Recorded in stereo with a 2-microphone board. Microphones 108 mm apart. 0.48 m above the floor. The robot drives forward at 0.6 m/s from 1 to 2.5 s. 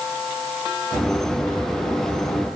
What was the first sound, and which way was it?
Only background noise.